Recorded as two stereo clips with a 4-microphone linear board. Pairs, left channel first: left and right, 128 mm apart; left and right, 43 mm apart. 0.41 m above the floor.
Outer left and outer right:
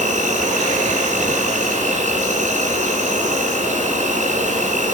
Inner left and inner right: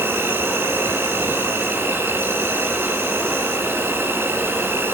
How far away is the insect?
About 5 m.